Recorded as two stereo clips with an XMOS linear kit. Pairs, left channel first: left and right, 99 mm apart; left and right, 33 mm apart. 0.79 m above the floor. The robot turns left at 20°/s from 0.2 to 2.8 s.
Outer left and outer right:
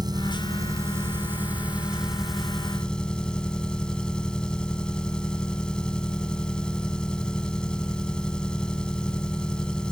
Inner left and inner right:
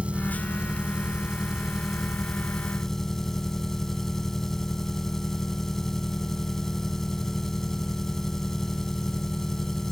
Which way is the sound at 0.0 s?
135° right.